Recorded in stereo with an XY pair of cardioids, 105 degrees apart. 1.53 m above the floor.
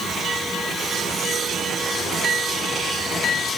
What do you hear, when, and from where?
Only background noise.